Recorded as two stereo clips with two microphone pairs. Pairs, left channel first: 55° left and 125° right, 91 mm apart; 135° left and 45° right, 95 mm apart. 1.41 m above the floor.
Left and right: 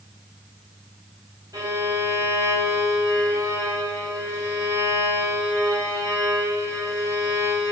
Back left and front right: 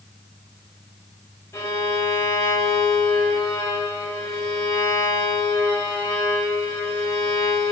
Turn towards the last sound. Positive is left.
turn(degrees=-170)